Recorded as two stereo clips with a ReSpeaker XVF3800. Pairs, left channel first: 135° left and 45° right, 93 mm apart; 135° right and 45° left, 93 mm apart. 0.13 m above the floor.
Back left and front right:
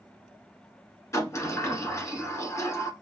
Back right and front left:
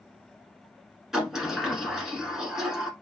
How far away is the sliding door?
About 1.0 m.